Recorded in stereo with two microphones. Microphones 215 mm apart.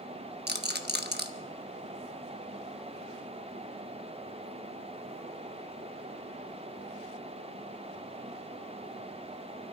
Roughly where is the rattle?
Right.